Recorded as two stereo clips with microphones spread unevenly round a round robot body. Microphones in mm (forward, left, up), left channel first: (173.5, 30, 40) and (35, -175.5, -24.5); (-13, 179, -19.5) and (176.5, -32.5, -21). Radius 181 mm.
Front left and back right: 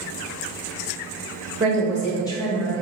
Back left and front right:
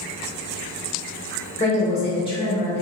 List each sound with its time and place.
1.6 s a woman speaking: 170° right, 1.0 m; by 2.8 s 60° left, 0.9 m